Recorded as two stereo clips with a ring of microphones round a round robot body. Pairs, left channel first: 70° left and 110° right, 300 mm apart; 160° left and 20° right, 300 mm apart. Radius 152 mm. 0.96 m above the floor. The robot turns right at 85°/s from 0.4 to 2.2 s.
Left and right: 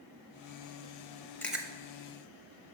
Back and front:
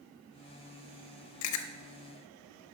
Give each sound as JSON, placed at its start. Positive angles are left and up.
{"t": 1.4, "sound": "chewing", "azimuth_deg": 150, "distance_m": 0.7}